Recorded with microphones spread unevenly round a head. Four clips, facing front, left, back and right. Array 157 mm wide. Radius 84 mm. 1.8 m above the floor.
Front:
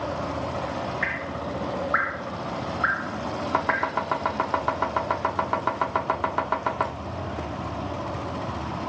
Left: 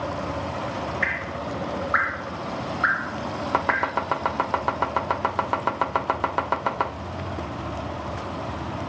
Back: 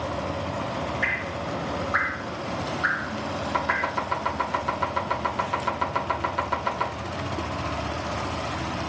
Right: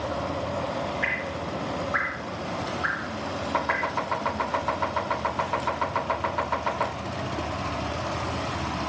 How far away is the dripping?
About 2.5 m.